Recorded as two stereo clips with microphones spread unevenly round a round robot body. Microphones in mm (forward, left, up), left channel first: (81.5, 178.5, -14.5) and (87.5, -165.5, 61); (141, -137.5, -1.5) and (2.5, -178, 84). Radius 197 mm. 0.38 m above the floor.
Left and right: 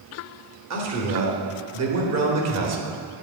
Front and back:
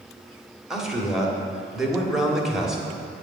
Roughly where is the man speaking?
Ahead right.